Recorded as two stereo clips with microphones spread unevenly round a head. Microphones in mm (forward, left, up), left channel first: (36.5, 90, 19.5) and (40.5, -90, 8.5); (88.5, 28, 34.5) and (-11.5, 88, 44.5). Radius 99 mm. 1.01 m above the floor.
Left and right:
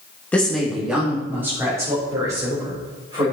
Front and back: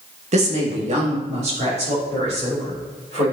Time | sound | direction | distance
0.3 | a woman speaking | 175° left | 1.5 m